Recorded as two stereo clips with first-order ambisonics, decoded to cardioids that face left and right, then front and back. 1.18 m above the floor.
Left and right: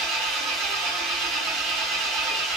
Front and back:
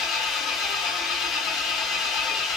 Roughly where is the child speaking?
No child speaking in this recording.